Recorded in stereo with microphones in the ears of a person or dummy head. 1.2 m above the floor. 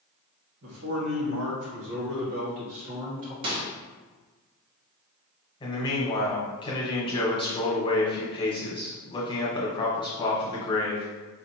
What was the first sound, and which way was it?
A man speaking, 75° right (ahead or behind).